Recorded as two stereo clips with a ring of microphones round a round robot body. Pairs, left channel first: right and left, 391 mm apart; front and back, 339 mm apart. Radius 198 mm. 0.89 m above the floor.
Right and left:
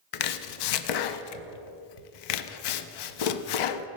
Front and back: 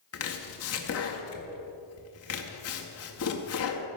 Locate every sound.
0.1 s chopping: 55° right, 0.5 m